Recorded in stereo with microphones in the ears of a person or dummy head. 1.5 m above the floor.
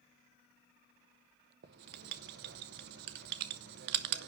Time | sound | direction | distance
1.6 | writing | 60° right (ahead or behind) | 0.9 m